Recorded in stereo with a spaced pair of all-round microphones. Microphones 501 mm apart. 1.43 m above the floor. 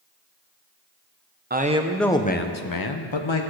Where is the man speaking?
20° right (ahead or behind), 0.8 m; by 3.4 s 70° left (ahead or behind), 0.9 m.